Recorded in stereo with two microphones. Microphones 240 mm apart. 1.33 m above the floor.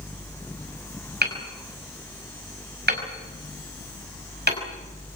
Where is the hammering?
45° right (ahead or behind), 5 m.